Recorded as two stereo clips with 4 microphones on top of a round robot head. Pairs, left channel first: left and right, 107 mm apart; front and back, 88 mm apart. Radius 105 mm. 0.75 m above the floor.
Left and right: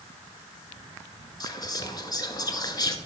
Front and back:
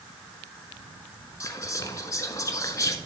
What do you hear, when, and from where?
1.4 s whispering: 50° left, 1.4 m